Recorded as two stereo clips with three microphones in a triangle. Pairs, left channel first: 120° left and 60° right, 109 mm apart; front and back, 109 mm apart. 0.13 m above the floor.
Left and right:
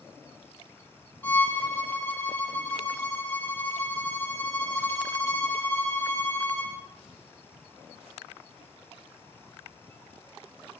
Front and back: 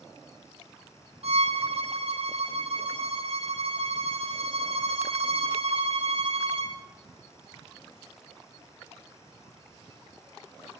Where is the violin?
170° right, 3.5 m.